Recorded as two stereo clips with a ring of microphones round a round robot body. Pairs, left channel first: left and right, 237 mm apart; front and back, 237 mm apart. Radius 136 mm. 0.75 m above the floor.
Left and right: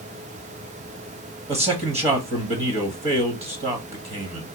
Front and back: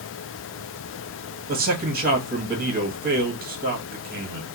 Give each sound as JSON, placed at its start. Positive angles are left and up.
{"t": 1.5, "sound": "a man speaking", "azimuth_deg": -145, "distance_m": 1.1}